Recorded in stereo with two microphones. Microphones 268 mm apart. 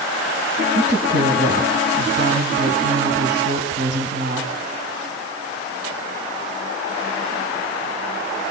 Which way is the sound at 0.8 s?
40° right (ahead or behind).